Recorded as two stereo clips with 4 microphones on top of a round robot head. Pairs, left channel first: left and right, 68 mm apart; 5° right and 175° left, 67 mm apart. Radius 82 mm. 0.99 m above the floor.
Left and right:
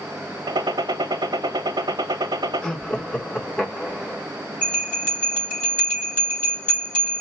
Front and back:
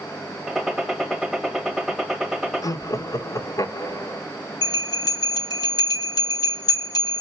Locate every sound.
0.5 s a gunshot: 95° right, 1.1 m
2.6 s laughter: 15° left, 1.5 m
4.6 s a bell: 15° left, 3 m